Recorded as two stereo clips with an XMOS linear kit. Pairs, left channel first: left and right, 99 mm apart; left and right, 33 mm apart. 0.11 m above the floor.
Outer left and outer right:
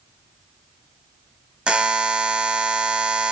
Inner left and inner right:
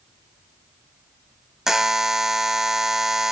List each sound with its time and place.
1.7 s a buzzer: 10° right (ahead or behind), 0.6 m